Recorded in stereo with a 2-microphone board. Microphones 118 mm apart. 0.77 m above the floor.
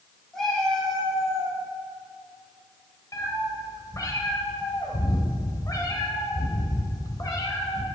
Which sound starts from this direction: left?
A cat meowing, at 3.1 s.